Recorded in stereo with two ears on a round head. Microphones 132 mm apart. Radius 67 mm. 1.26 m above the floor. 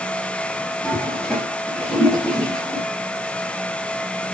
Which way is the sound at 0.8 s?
5° left (ahead or behind).